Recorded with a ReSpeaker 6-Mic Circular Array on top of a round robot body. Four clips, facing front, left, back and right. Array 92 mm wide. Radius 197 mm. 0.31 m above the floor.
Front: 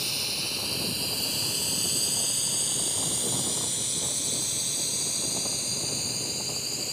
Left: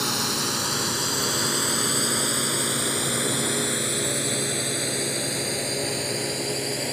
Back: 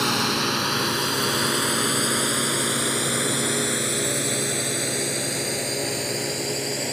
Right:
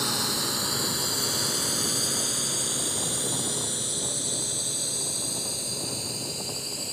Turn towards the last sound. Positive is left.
turn(degrees=140)